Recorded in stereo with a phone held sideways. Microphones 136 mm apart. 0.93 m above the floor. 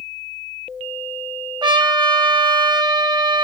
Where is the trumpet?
35° right (ahead or behind), 0.5 m.